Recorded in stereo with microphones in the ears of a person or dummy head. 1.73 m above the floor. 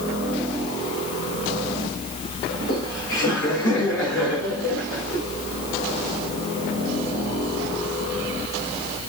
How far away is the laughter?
About 9.5 m.